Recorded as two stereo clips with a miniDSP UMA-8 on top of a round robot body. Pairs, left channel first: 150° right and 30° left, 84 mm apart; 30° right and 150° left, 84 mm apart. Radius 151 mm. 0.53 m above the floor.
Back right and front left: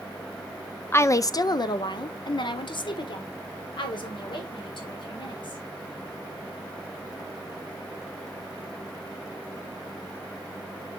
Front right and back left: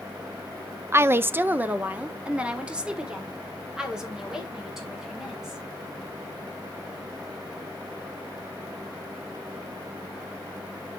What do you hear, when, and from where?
0.9 s a woman speaking: 175° left, 0.6 m; by 5.6 s 125° right, 3 m